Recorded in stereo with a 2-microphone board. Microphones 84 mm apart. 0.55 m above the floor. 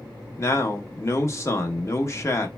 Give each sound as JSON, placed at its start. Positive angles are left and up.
{"t": 0.4, "sound": "a man speaking", "side_deg": 35, "distance_m": 0.7}